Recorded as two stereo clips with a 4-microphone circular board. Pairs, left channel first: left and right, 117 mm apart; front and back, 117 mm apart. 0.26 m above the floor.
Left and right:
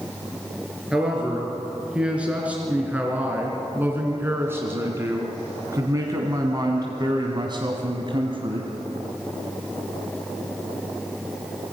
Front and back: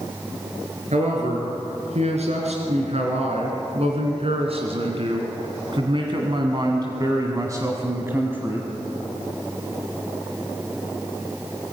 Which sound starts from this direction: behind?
A man speaking, at 0.9 s.